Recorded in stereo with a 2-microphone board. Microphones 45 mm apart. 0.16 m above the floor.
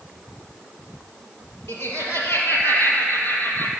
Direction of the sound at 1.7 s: 70° left (ahead or behind).